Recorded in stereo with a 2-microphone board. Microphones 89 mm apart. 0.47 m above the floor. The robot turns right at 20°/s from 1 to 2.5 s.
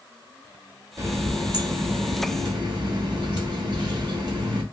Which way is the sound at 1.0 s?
140° right.